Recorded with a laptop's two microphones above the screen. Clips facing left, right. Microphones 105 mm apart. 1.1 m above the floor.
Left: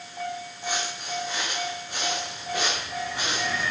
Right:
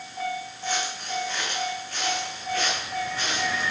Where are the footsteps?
10° left (ahead or behind), 5 m; by 3.6 s 15° left (ahead or behind), 7 m.